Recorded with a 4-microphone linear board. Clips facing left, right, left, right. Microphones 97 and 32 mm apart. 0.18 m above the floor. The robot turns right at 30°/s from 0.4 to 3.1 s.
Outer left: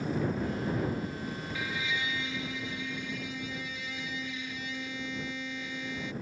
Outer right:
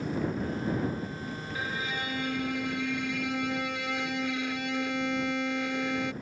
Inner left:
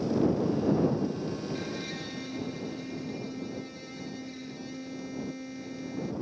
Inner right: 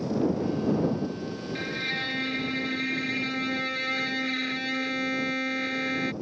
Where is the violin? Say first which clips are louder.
Outer right 2 dB, inner right 6 dB; 140° right; by 6.1 s 95° right.